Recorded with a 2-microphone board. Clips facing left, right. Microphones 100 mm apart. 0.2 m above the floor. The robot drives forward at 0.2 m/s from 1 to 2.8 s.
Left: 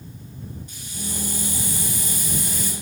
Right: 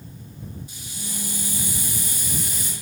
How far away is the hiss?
About 1.5 m.